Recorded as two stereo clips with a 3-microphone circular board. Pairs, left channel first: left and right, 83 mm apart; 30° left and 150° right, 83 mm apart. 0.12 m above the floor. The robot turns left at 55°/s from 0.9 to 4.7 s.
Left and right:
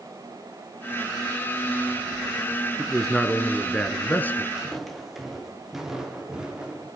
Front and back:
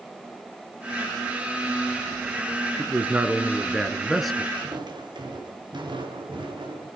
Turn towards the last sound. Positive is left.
turn(degrees=-170)